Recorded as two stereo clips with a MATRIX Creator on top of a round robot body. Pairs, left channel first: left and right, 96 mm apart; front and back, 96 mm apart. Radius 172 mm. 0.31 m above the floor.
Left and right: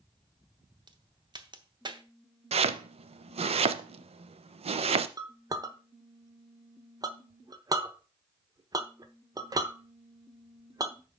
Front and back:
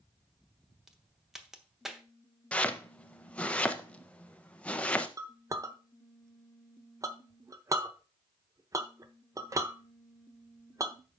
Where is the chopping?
80° right, 0.6 m.